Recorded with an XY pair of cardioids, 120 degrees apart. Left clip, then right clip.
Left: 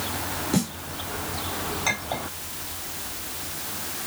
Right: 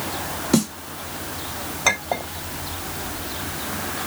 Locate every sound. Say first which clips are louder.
0.5 s a snare drum: right 7 dB; 45° right, 3.5 m
1.9 s a clink: right 7 dB; 55° right, 3.5 m